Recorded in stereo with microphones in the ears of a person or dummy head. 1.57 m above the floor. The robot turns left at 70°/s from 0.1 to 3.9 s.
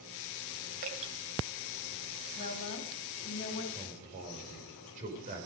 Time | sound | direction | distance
0.8 | dripping | 45° right (ahead or behind) | 2 m
2.4 | a woman speaking | 135° left | 3.5 m
3.7 | a man speaking | 35° right (ahead or behind) | 5 m